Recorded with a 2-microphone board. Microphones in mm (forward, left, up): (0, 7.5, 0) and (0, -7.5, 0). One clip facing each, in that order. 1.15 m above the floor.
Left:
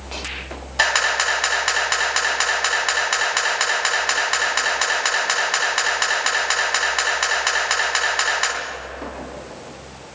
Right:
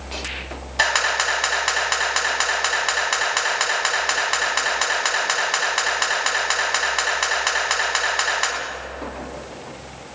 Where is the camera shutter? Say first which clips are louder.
Left 1 dB; 5° left (ahead or behind), 3.5 m.